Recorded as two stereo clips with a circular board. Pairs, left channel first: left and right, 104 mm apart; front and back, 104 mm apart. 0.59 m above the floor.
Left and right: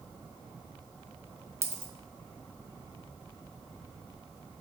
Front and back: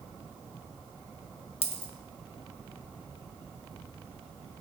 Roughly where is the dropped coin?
Ahead right.